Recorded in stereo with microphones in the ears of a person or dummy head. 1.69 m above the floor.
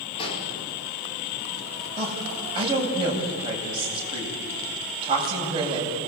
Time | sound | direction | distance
0.2 | an explosion | 30° left (ahead or behind) | 5 m
2.0 | a woman speaking | 30° right (ahead or behind) | 8.5 m